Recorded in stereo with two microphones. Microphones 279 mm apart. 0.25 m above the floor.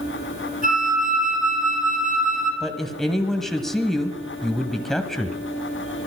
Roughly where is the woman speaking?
Centre.